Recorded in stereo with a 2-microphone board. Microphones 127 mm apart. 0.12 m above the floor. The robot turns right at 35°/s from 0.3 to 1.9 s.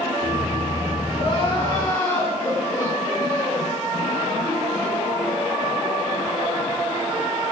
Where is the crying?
50° left (ahead or behind), 10 m; by 3.7 s 20° left (ahead or behind), 10 m.